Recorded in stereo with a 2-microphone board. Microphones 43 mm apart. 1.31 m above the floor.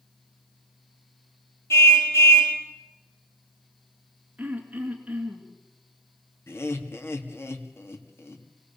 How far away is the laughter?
About 2.5 m.